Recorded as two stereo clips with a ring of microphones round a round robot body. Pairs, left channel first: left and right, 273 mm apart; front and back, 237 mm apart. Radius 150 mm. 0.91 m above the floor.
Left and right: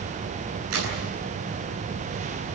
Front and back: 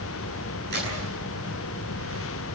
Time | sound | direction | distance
0.7 | a crack | 125° right | 8 m